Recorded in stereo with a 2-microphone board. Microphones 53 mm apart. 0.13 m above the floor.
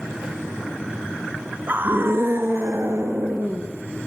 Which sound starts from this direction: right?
A scream, at 1.7 s.